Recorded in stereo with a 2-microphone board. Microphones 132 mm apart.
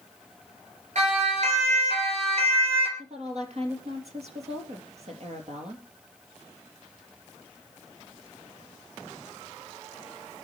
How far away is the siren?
About 4.5 m.